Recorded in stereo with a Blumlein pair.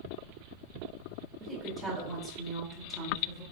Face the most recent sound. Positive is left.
turn(degrees=0)